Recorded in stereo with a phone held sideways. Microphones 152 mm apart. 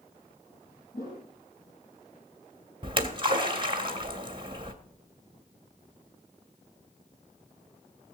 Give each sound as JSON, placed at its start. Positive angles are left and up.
{"t": 0.9, "sound": "a whoosh", "side_deg": 70, "distance_m": 6.0}
{"t": 2.8, "sound": "a splash", "side_deg": -35, "distance_m": 2.0}